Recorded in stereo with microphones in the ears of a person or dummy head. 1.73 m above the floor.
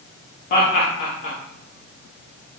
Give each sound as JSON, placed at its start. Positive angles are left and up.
{"t": 0.5, "sound": "laughter", "side_deg": 45, "distance_m": 1.3}